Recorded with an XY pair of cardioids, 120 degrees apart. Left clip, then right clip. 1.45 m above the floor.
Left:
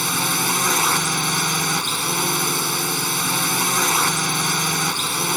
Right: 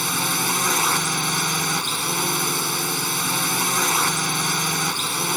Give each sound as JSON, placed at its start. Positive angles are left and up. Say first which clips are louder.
{"t": 0.0, "sound": "a drone", "louder": "left 2 dB", "azimuth_deg": 5}